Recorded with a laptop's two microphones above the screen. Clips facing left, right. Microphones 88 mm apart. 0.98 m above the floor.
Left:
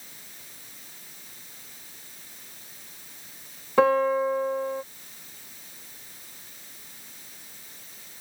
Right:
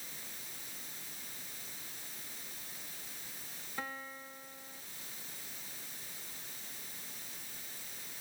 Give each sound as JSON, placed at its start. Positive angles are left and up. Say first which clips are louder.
{"t": 3.8, "sound": "a piano", "louder": "left 25 dB", "side_deg": 80}